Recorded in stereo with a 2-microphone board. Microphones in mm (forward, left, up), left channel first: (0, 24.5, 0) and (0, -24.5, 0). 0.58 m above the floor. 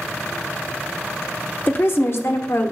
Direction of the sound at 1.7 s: 40° left (ahead or behind).